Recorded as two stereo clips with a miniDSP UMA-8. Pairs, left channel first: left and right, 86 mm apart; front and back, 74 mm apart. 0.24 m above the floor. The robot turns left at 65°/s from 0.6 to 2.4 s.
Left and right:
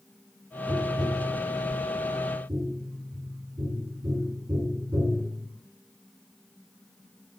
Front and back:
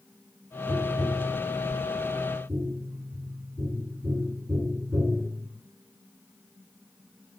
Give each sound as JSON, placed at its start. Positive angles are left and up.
{"t": 0.7, "sound": "tapping", "azimuth_deg": -25, "distance_m": 1.3}